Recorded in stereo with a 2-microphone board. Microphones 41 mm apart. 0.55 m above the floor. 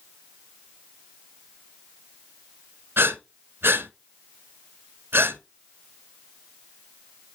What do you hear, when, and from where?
3.0 s breathing: 70° right (ahead or behind), 1.1 m